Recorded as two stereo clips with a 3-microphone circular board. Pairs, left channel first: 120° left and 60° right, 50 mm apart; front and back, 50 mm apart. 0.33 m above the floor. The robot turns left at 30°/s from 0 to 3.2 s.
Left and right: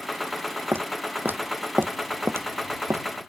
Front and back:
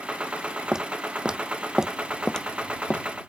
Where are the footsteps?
100° right; by 3.0 s 60° right.